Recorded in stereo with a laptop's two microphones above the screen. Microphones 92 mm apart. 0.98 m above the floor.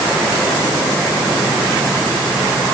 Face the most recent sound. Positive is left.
No sound to turn to.